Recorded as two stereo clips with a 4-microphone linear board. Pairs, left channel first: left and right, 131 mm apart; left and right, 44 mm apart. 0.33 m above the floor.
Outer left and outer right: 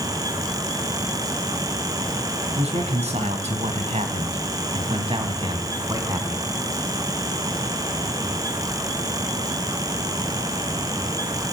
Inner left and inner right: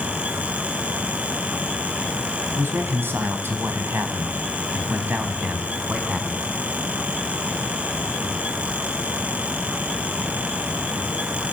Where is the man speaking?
60° right (ahead or behind), 3 m; by 6.4 s 25° right (ahead or behind), 3 m.